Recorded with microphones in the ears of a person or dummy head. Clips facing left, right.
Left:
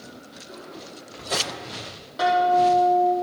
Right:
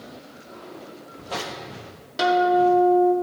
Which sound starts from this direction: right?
A guitar, at 2.2 s.